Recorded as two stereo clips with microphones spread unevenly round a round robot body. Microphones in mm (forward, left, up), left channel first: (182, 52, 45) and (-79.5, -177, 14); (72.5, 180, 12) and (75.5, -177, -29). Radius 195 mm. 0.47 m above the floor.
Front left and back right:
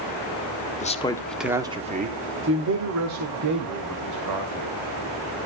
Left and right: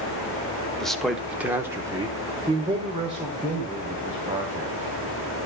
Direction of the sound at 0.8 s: 10° right.